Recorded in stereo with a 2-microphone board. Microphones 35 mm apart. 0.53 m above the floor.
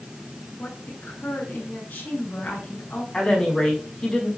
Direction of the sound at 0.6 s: 40° left (ahead or behind).